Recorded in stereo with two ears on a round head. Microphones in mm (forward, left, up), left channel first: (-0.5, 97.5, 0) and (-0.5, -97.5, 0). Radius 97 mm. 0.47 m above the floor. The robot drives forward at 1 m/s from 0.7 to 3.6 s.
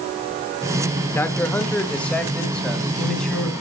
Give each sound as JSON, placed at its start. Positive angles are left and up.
{"t": 1.1, "sound": "a man speaking", "side_deg": 10, "distance_m": 0.8}